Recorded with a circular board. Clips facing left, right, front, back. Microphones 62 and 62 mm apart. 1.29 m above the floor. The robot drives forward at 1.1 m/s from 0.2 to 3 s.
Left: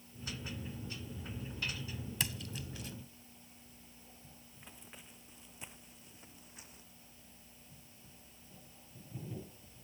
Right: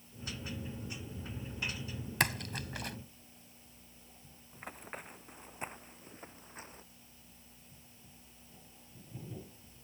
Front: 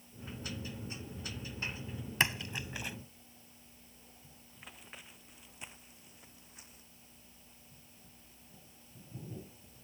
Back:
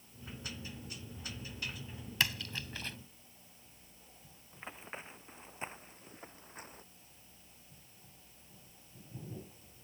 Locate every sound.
2.2 s a splash: 65° right; by 3.0 s 80° right
4.5 s running footsteps: 125° right; by 6.8 s 140° right